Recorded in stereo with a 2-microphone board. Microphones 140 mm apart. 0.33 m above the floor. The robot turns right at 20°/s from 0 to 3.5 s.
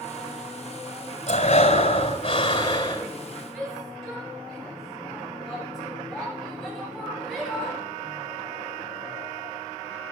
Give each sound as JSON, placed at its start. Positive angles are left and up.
{"t": 1.3, "sound": "breathing", "azimuth_deg": 105, "distance_m": 2.0}
{"t": 3.5, "sound": "a shout", "side_deg": 0, "distance_m": 7.5}